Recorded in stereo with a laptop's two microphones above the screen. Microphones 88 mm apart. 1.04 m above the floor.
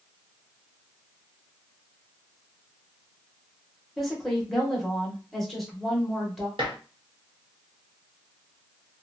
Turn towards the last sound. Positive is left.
turn(degrees=-70)  # may be behind; listen again after turning